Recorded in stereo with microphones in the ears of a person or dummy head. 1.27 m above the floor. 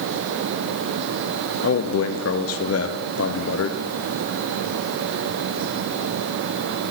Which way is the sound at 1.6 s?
65° left (ahead or behind).